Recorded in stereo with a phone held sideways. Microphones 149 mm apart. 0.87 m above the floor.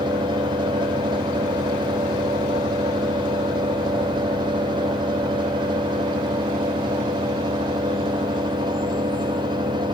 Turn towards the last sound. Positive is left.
turn(degrees=-30)  # may be behind; listen again after turning